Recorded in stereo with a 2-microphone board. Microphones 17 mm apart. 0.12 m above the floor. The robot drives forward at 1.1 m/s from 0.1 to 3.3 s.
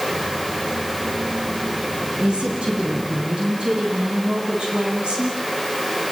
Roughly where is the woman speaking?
Right.